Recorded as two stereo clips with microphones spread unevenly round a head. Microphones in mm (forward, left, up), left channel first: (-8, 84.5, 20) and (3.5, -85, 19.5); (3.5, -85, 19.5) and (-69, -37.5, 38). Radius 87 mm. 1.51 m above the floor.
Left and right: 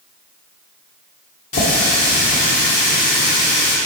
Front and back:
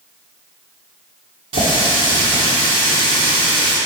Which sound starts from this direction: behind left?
A running tap, at 1.5 s.